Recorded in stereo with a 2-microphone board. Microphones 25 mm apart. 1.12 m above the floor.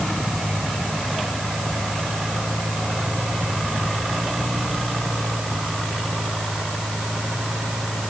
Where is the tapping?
No tapping in this recording.